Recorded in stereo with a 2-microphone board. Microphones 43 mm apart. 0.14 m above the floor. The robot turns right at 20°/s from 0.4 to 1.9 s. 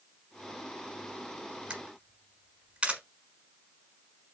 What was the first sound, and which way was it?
A camera shutter, 20° right (ahead or behind).